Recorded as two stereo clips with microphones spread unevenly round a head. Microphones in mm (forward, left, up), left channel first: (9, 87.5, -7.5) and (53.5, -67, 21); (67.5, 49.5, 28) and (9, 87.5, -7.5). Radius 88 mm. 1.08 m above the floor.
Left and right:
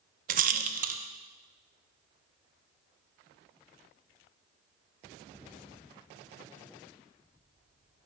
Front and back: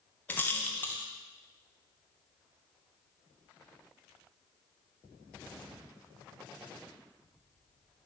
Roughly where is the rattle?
Behind right.